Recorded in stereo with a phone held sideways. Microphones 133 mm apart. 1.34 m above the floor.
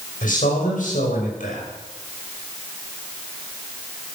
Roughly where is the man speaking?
Left.